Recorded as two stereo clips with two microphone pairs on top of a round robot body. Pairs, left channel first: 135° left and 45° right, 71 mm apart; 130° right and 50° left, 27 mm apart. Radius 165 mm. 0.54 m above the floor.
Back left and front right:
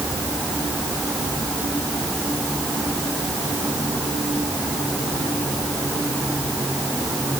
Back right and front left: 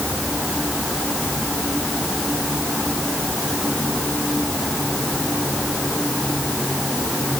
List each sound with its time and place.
Only background noise.